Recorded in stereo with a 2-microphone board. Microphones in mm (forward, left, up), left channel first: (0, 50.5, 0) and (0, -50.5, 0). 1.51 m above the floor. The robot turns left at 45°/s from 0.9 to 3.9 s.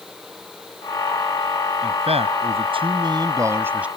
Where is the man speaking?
75° right; by 3.9 s 165° right.